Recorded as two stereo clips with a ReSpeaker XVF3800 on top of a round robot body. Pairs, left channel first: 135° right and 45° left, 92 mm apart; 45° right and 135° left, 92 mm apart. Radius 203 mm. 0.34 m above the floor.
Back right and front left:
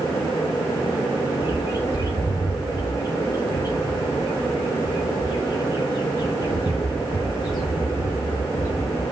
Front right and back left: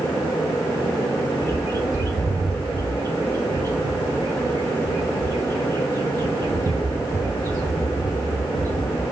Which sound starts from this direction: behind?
A bird, at 1.4 s.